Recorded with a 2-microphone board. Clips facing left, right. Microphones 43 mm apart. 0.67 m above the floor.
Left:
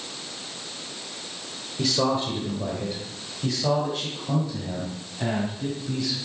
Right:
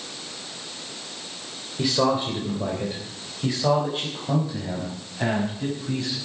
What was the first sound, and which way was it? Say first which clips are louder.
A man speaking: right 2 dB; 15° right (ahead or behind).